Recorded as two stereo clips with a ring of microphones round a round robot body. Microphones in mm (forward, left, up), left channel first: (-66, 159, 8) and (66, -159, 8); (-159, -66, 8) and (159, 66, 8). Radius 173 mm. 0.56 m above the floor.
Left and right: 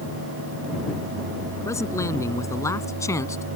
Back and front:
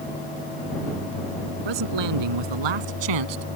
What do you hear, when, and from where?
1.6 s a man speaking: 30° left